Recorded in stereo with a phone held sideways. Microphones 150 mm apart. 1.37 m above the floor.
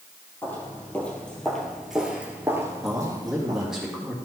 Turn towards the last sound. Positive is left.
turn(degrees=-5)  # may be behind; listen again after turning